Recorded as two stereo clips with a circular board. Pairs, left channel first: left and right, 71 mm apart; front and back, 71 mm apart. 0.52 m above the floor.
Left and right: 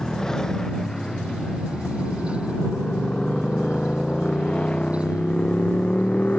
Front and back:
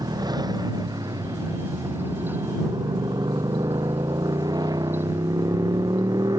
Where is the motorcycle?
170° left; by 6.4 s 160° left.